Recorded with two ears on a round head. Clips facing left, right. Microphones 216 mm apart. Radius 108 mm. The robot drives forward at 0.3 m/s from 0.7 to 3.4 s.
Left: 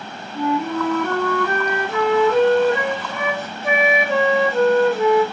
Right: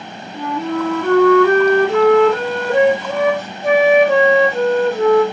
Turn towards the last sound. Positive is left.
turn(degrees=-35)  # may be behind; listen again after turning